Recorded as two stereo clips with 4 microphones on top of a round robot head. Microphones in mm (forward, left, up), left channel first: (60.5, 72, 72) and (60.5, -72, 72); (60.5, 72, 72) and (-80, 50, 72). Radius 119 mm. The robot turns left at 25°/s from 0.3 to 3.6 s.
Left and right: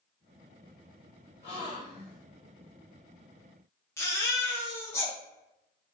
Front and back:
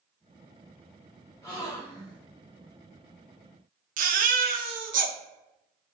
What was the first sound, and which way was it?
A gasp, 65° left.